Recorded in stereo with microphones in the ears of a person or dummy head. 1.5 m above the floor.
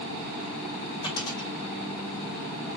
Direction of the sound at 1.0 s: 25° left (ahead or behind).